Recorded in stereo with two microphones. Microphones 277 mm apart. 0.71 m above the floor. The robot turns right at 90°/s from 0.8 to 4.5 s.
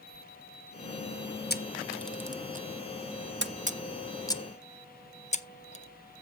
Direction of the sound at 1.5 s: 35° left (ahead or behind).